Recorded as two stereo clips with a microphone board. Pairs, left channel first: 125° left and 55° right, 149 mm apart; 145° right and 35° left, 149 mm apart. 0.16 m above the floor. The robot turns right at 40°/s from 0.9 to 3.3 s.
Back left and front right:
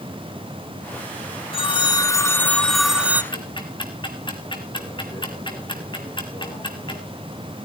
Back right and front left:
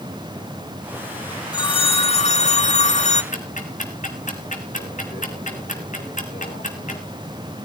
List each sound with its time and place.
1.5 s a phone ringing: 160° left, 1.4 m; by 3.2 s 130° right, 1.4 m
3.3 s ticking: straight behind, 3 m